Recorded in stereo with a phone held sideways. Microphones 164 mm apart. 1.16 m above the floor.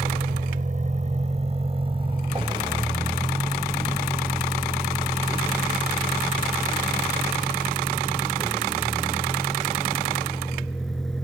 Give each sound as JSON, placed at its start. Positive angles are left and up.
{"t": 0.0, "sound": "a vehicle", "side_deg": -60}